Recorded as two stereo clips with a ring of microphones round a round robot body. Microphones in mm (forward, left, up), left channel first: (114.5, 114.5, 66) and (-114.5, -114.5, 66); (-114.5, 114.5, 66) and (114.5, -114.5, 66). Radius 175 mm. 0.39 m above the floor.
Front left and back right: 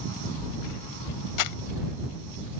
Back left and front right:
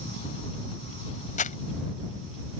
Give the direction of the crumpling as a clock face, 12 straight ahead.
10 o'clock.